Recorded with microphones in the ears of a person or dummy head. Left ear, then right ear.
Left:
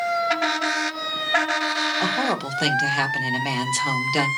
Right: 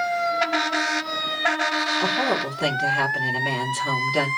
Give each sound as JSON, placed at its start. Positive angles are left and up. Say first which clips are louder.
{"t": 2.0, "sound": "a woman speaking", "louder": "right 1 dB", "side_deg": 55, "distance_m": 3.0}